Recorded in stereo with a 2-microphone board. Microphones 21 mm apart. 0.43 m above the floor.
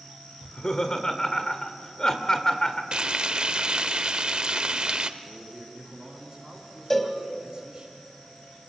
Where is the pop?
No pop in this recording.